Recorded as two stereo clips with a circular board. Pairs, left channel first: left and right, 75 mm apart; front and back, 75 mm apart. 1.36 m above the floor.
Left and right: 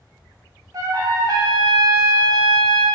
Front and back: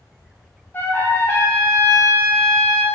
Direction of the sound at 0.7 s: 60° right.